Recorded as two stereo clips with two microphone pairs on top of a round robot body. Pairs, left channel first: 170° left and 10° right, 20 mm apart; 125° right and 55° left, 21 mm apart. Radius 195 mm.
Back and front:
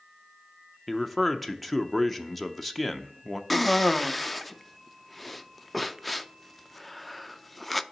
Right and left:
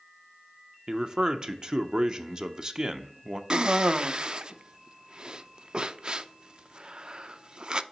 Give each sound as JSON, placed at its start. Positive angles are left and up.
{"t": 0.9, "sound": "a man speaking", "azimuth_deg": 75, "distance_m": 0.8}
{"t": 3.5, "sound": "a cough", "azimuth_deg": 75, "distance_m": 0.7}